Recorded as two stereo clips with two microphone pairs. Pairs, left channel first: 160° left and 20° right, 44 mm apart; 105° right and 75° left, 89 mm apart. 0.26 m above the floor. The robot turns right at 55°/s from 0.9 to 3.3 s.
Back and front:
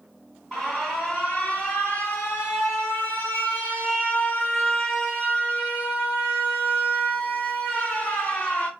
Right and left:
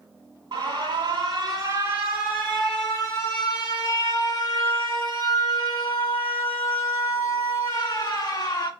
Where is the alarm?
75° left, 1.7 m; by 8.7 s 155° right, 1.7 m.